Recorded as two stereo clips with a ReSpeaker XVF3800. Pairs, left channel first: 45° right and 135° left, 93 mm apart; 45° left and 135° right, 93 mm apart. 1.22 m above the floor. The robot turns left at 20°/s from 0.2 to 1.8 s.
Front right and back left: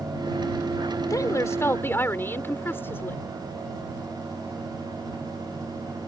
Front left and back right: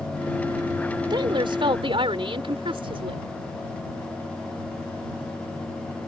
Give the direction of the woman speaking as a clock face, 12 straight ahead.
3 o'clock.